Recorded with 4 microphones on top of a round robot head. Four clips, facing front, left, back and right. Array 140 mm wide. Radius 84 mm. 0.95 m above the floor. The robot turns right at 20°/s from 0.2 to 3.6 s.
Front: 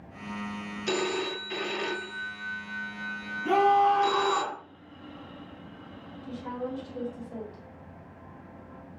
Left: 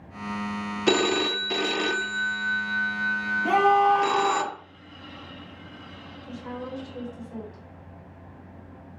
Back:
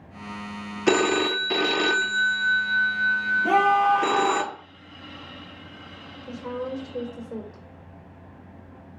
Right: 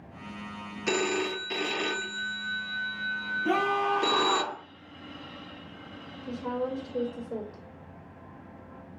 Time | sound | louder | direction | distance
0.9 | a phone ringing | left 5 dB, back 9 dB | 150° left | 0.9 m
3.4 | a scream | left 8 dB, back 1 dB | 155° left | 4.5 m
6.2 | a woman speaking | right 5 dB, back 3 dB | 135° right | 3.5 m